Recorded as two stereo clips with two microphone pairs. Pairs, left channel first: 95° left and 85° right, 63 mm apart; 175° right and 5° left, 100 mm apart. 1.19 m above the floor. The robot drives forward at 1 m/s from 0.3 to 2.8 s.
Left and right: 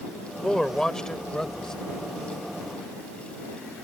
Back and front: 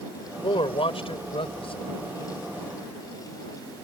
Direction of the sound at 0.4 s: 175° left.